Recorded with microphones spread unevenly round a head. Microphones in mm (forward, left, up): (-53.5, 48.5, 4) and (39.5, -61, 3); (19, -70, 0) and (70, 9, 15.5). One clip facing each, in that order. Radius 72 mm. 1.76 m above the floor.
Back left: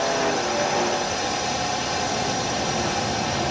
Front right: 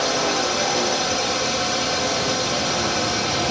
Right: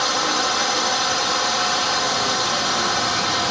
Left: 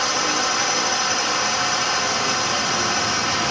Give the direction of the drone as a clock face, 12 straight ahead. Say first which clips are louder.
Even, right 1 dB; 1 o'clock.